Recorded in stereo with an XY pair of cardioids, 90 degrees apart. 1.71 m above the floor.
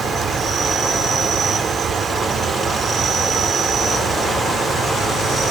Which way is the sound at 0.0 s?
70° right.